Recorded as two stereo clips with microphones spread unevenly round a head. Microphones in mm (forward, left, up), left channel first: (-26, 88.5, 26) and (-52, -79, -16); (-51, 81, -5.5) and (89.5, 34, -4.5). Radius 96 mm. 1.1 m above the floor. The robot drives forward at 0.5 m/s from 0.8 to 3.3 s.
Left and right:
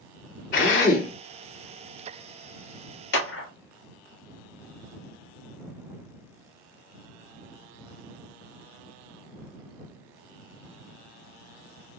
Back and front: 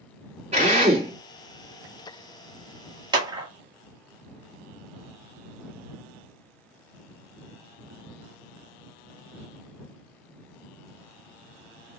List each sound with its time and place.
0.5 s a drill: 25° left, 3 m; by 1.1 s 30° left, 3 m
3.1 s a clap: 45° left, 1.4 m